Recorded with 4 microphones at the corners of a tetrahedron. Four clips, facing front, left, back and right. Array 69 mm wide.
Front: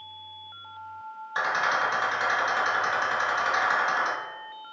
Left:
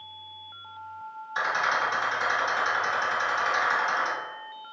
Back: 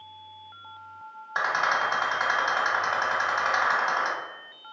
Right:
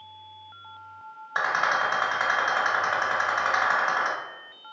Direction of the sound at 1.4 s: 115° right.